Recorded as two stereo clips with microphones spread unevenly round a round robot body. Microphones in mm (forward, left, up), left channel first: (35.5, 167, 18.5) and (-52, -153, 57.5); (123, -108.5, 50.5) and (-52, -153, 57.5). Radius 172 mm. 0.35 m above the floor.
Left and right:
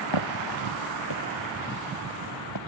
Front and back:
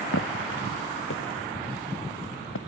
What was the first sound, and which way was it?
Footsteps, 60° left.